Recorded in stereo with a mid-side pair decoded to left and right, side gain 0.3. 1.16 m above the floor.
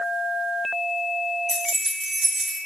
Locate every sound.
1.5 s keys jangling: 5° right, 0.6 m; by 2.6 s 75° right, 0.7 m